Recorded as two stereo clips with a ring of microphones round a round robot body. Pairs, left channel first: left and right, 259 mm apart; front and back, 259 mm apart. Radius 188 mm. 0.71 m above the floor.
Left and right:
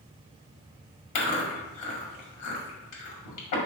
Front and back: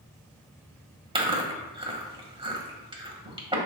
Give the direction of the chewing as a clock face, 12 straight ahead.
8 o'clock.